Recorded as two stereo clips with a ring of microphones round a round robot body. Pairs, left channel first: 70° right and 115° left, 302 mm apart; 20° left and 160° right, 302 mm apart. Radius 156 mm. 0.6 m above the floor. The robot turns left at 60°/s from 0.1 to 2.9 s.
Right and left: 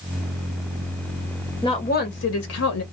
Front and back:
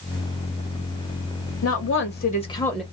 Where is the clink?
I don't hear a clink.